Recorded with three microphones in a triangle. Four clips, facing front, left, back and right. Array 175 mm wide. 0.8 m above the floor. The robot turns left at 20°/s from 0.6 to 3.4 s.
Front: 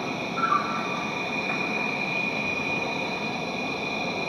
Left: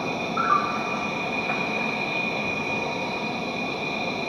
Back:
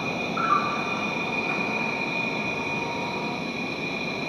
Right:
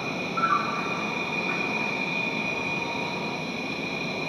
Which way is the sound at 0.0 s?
115° left.